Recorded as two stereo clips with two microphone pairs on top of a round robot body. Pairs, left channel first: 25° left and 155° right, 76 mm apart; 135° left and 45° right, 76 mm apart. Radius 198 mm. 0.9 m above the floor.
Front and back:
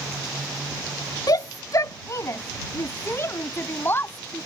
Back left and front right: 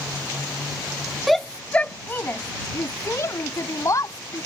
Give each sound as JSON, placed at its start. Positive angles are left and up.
{"t": 1.3, "sound": "a shout", "azimuth_deg": 45}